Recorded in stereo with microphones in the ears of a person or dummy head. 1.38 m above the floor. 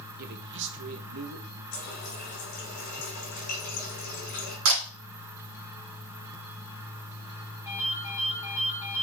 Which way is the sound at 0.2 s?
50° right (ahead or behind).